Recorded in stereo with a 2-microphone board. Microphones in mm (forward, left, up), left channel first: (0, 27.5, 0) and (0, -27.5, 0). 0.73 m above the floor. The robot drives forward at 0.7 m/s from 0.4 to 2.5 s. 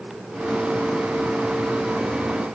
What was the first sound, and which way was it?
Only background noise.